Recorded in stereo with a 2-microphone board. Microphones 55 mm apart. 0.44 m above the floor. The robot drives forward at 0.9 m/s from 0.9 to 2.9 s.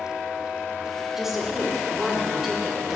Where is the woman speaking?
5° right (ahead or behind), 1.4 m.